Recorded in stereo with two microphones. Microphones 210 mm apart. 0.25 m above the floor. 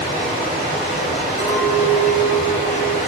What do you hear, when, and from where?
0.0 s running water: 35° left (ahead or behind), 1.5 m
1.4 s a clink: 50° left (ahead or behind), 1.0 m